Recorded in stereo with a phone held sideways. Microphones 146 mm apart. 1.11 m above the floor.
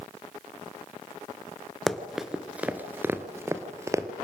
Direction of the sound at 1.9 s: Centre (ahead or behind).